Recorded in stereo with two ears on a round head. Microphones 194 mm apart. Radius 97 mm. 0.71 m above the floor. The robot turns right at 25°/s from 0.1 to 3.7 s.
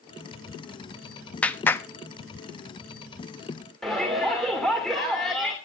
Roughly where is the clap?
Centre.